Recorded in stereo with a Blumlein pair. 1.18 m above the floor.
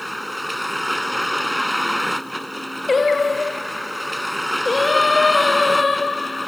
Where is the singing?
15° left.